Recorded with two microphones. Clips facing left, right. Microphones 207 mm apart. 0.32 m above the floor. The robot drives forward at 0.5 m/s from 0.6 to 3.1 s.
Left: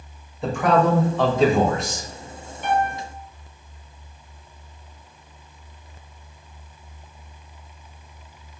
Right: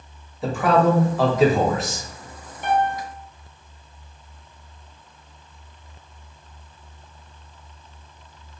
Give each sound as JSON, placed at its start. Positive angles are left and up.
{"t": 0.4, "sound": "a man speaking", "side_deg": -5, "distance_m": 0.9}
{"t": 2.6, "sound": "a piano", "side_deg": -45, "distance_m": 1.4}